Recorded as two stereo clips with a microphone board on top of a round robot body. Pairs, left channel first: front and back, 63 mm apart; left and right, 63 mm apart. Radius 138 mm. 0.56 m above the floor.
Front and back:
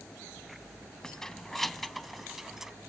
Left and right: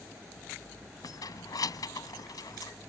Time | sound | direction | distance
1.0 | keys jangling | 80° left | ?